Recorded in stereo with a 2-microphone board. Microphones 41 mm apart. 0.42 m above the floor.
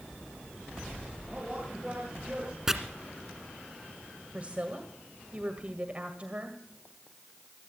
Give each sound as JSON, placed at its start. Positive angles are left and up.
{"t": 1.3, "sound": "a man speaking", "side_deg": -20, "distance_m": 8.5}
{"t": 2.7, "sound": "chopping", "side_deg": -10, "distance_m": 1.8}
{"t": 4.3, "sound": "a woman speaking", "side_deg": -35, "distance_m": 1.8}